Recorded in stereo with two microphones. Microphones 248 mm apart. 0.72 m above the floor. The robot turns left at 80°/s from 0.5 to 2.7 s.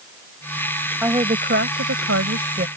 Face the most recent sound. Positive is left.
turn(degrees=-145)